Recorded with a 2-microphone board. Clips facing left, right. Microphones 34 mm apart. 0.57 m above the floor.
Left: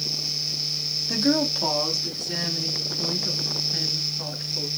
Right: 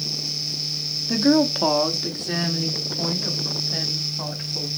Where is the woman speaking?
5° right (ahead or behind), 0.6 m; by 4.7 s 55° right (ahead or behind), 3 m.